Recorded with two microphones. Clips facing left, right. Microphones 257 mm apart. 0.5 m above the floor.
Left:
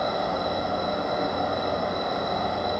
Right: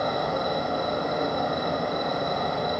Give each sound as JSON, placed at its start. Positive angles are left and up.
{"t": 0.0, "sound": "an insect", "side_deg": -40, "distance_m": 0.9}